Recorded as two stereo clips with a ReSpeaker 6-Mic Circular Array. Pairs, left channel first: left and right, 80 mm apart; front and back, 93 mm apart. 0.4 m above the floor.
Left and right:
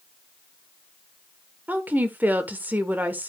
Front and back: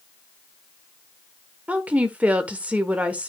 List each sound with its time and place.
1.7 s a woman speaking: 125° right, 1.2 m